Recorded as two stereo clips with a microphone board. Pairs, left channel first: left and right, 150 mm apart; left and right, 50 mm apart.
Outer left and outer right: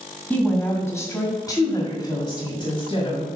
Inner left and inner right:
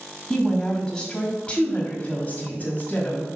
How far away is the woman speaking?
About 1.9 m.